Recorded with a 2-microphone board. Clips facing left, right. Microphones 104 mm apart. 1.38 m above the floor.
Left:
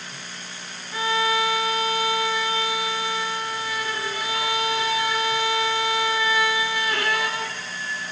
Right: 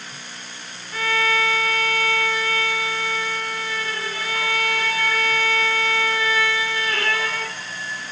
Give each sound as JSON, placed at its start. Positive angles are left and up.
{"t": 0.9, "sound": "a violin", "side_deg": 15, "distance_m": 0.9}